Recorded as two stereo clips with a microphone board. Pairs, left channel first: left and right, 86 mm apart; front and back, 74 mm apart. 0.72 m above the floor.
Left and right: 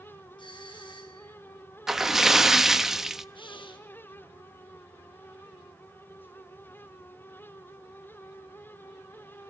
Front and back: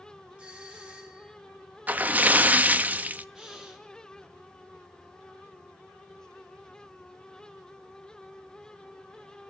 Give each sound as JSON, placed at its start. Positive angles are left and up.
{"t": 0.4, "sound": "a doorbell", "azimuth_deg": 110, "distance_m": 6.0}
{"t": 1.9, "sound": "a splash", "azimuth_deg": -170, "distance_m": 0.8}
{"t": 3.4, "sound": "breathing", "azimuth_deg": 105, "distance_m": 4.5}